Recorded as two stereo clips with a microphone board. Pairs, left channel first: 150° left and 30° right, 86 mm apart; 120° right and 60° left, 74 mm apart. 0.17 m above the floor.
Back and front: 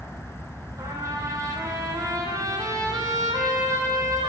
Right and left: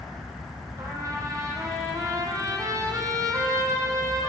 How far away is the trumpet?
About 4 m.